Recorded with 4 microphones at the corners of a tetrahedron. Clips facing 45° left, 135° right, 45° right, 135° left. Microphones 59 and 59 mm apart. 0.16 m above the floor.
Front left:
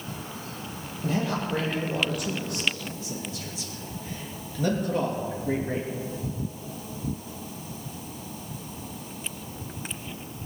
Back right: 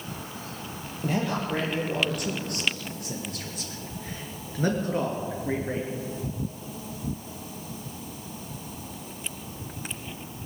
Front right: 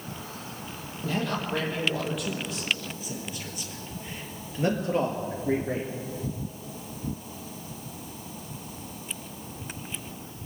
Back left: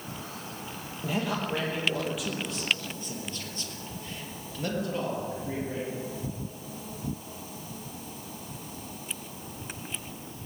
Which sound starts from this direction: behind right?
A man speaking, at 1.0 s.